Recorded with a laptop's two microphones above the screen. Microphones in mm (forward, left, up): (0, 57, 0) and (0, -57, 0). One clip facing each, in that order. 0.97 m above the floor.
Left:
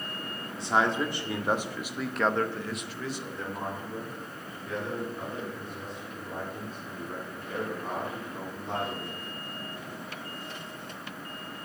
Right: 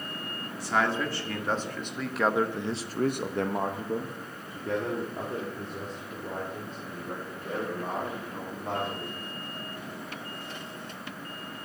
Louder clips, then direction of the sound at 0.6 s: Left 1 dB; 25° left (ahead or behind).